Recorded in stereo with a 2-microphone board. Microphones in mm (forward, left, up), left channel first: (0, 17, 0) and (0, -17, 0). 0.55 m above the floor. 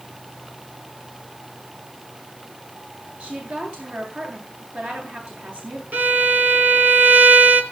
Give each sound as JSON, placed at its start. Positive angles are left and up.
{"t": 3.2, "sound": "a woman speaking", "side_deg": -45, "distance_m": 9.0}
{"t": 5.9, "sound": "a violin", "side_deg": -55, "distance_m": 2.5}